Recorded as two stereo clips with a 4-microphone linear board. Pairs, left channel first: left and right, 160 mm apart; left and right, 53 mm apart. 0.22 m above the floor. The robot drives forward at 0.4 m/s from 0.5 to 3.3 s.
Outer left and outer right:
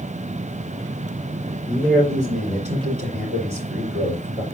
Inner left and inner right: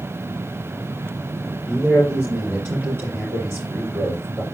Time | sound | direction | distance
1.7 | a man speaking | 50° right (ahead or behind) | 5 m